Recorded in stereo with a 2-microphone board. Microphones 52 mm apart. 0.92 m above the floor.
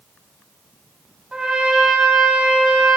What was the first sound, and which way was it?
A trumpet, 10° right (ahead or behind).